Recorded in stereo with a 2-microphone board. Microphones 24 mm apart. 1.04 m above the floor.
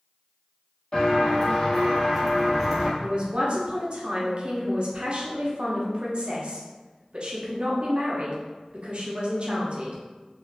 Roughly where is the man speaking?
Right.